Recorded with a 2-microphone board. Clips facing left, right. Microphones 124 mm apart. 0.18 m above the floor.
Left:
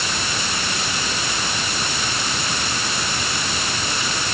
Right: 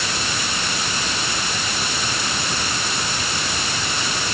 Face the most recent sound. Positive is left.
No sound to turn to.